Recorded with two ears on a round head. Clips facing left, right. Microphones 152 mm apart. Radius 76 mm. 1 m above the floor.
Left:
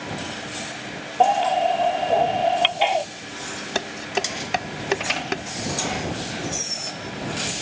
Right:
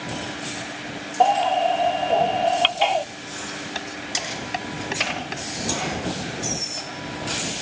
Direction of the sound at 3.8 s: 70° left (ahead or behind).